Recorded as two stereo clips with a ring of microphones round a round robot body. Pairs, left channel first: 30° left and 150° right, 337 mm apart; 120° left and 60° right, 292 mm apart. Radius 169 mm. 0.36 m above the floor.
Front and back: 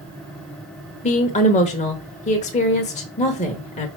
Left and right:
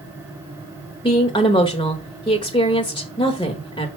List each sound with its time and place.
1.0 s a woman speaking: 70° left, 1.1 m